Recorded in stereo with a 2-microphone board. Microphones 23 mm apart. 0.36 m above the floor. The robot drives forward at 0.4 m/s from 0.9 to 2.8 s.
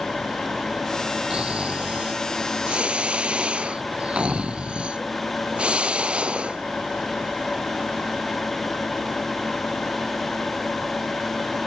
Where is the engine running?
40° left (ahead or behind).